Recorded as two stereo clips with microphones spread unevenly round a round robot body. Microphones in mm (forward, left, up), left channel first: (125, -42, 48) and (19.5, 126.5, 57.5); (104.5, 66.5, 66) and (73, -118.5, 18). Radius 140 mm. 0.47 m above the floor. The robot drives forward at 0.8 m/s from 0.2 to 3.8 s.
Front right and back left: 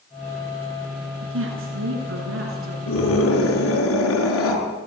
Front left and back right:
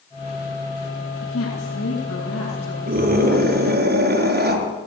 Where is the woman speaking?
110° left, 8 m; by 2.8 s 115° left, 8.5 m.